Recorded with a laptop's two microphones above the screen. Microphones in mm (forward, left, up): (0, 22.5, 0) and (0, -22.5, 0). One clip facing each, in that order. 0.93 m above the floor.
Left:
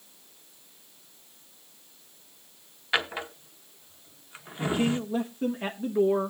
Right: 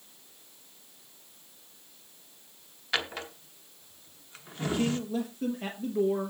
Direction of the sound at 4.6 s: 25° left (ahead or behind).